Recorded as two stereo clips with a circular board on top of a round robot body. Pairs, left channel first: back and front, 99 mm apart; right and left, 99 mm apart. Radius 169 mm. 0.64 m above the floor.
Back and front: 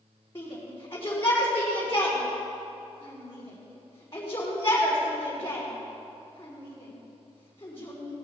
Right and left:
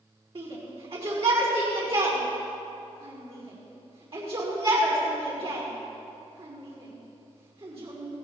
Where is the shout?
115° left, 4.5 m.